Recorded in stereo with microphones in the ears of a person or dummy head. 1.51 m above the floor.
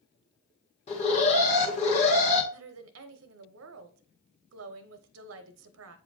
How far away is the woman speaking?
About 0.7 m.